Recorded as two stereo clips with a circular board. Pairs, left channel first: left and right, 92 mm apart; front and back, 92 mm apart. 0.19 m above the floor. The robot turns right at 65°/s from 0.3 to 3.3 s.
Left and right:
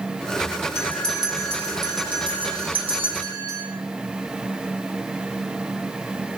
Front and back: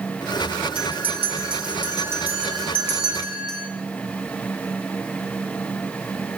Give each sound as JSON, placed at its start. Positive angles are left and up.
{"t": 0.8, "sound": "a bell", "azimuth_deg": 150, "distance_m": 3.5}